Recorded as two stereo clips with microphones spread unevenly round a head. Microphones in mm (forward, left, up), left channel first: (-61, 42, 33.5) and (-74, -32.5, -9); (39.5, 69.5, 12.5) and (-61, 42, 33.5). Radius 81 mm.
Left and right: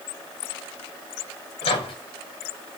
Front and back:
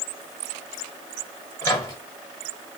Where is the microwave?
75° left, 1.6 m.